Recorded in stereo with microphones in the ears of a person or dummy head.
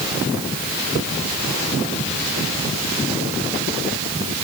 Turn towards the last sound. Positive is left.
No sound to turn to.